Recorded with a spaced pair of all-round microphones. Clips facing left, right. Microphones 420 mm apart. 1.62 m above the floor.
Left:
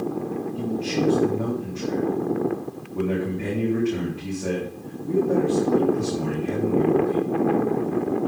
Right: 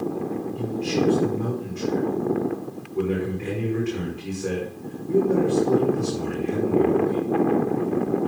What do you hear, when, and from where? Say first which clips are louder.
0.6 s a man speaking: right 1 dB; 80° left, 4 m